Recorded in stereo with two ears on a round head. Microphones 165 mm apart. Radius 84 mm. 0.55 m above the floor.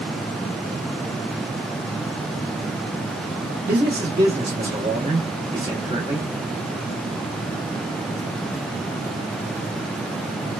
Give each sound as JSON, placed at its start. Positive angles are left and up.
{"t": 3.7, "sound": "a man speaking", "side_deg": -30, "distance_m": 0.9}